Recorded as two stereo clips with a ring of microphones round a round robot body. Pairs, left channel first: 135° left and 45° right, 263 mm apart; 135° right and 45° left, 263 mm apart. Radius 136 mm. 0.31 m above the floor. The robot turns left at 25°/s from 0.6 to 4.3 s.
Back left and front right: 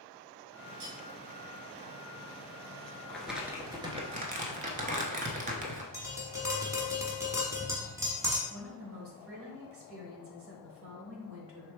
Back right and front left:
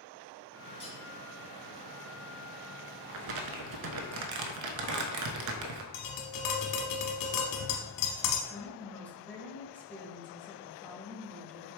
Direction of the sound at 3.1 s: 50° left.